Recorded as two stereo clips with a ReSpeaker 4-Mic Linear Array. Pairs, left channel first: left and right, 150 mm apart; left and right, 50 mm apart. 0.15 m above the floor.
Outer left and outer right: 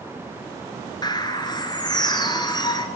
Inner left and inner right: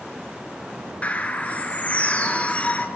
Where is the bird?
25° left (ahead or behind), 2.5 m.